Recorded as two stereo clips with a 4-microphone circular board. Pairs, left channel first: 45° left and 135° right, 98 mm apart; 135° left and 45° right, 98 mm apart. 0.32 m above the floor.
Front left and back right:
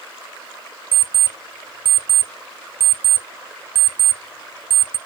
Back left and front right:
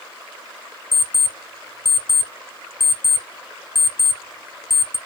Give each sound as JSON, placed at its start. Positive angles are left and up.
{"t": 0.9, "sound": "an alarm clock", "azimuth_deg": 155, "distance_m": 0.6}